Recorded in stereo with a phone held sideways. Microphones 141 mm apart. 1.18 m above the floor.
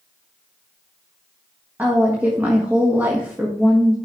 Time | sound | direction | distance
1.8 | a woman speaking | 15° right (ahead or behind) | 1.5 m